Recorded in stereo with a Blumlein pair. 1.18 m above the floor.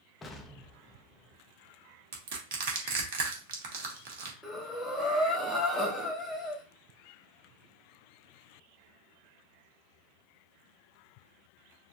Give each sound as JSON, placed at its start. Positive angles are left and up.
{"t": 0.2, "sound": "an explosion", "azimuth_deg": 15, "distance_m": 0.8}
{"t": 2.1, "sound": "crushing", "azimuth_deg": -50, "distance_m": 1.2}
{"t": 4.4, "sound": "breathing", "azimuth_deg": 0, "distance_m": 1.1}